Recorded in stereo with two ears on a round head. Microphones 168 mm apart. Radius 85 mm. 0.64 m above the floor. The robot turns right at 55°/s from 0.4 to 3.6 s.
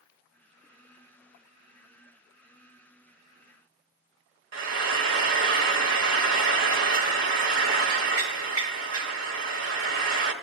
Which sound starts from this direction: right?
Frying, at 4.5 s.